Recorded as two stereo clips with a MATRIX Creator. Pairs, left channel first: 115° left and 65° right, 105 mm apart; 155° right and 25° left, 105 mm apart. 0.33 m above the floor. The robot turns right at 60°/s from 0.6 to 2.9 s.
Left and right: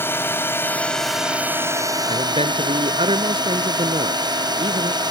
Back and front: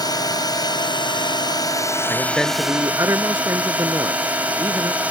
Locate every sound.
0.0 s a drone: 175° left; by 5.1 s 50° right
2.1 s a man speaking: 90° right; by 5.0 s 40° right